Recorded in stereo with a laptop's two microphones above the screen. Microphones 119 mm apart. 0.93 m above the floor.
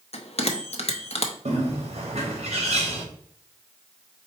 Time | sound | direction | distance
0.1 | a bell | 60° left (ahead or behind) | 0.7 m
1.4 | a bird | 65° right (ahead or behind) | 1.2 m